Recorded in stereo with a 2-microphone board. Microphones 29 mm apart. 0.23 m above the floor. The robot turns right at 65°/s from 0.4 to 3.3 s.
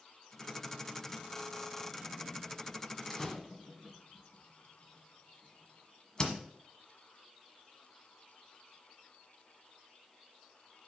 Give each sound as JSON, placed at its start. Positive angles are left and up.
{"t": 3.1, "sound": "a door slam", "side_deg": 15, "distance_m": 1.3}